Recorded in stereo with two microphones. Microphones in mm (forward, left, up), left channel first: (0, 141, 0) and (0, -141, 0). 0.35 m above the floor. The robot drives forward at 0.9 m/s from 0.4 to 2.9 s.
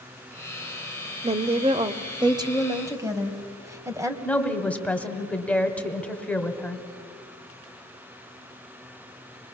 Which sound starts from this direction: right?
A woman speaking, at 1.2 s.